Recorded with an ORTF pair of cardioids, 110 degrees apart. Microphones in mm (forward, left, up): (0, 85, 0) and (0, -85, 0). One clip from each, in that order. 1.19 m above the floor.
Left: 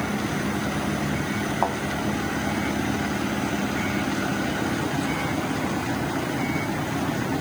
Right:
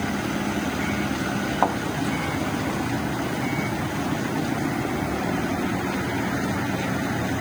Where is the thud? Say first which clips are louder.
Right 3 dB; 20° right, 3 m.